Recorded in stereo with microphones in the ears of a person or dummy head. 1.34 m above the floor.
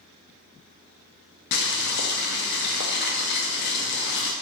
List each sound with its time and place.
1.5 s boiling: 55° left (ahead or behind), 0.6 m